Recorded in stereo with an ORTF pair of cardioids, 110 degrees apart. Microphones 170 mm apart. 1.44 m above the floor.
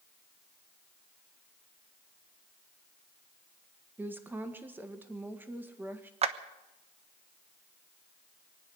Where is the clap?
35° right, 1.2 m.